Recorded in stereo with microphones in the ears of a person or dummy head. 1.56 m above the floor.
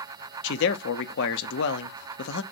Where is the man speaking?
65° left (ahead or behind), 0.7 m.